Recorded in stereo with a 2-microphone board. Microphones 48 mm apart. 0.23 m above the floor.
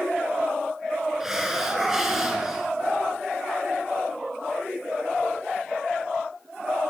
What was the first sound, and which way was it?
A hiss, 5° right (ahead or behind).